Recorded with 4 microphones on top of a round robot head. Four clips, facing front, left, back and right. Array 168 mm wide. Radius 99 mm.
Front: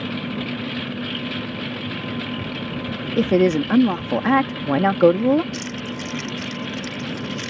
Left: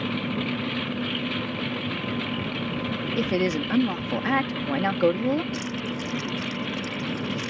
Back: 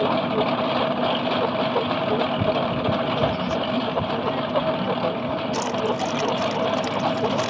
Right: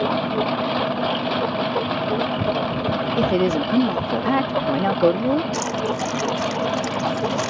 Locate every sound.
0.0 s a lawn mower: 140° right
3.2 s a woman speaking: 25° right
5.5 s keys jangling: 120° right